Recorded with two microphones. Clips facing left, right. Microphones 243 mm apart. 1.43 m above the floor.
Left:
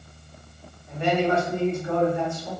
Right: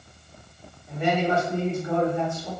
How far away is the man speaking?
About 1.4 m.